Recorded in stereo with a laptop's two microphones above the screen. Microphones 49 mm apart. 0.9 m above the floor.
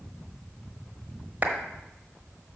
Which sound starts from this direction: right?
A clap, at 1.4 s.